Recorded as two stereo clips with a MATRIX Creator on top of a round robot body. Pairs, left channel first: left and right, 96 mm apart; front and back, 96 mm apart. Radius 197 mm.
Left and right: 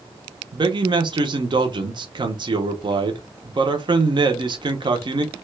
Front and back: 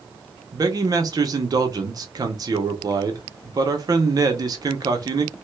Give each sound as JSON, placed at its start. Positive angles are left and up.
{"t": 0.5, "sound": "a man speaking", "azimuth_deg": -130, "distance_m": 0.7}